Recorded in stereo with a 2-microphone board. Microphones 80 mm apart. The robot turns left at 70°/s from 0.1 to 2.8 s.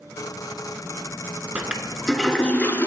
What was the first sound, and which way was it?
A toilet flushing, 145° right.